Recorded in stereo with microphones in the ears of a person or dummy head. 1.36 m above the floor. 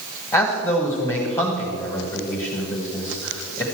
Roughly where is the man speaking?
Centre.